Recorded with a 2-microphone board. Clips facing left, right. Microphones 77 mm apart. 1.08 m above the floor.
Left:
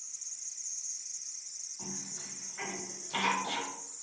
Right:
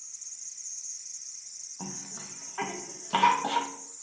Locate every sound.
1.8 s a cough: 80° right, 0.5 m